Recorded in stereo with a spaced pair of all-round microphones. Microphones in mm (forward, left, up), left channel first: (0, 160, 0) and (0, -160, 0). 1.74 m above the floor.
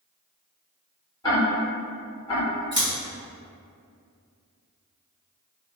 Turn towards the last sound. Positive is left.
turn(degrees=-35)  # may be behind; listen again after turning